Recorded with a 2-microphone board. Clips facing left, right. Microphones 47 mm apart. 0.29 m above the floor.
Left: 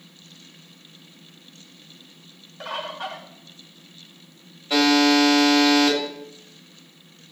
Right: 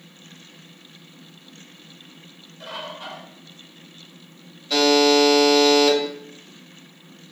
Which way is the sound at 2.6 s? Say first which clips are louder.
Left 3 dB; 55° left (ahead or behind).